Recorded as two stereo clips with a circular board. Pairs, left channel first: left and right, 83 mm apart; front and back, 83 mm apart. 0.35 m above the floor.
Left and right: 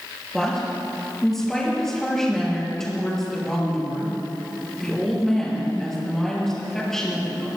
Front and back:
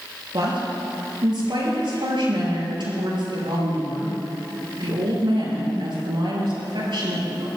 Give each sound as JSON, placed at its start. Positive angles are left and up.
{"t": 0.3, "sound": "a woman speaking", "azimuth_deg": 175, "distance_m": 6.5}